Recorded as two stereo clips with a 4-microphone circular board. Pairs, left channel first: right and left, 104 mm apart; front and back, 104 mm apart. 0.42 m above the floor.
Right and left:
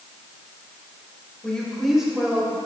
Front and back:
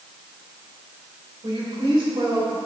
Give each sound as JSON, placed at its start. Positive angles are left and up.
{"t": 1.4, "sound": "a woman speaking", "azimuth_deg": -170, "distance_m": 1.7}